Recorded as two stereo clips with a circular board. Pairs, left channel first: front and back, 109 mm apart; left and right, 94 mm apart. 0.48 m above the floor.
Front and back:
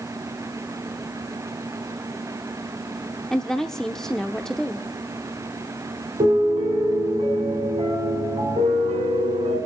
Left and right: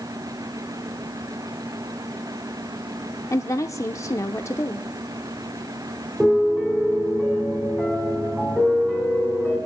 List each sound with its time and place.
3.3 s a woman speaking: 80° left, 0.7 m
6.2 s a piano: 175° right, 3.5 m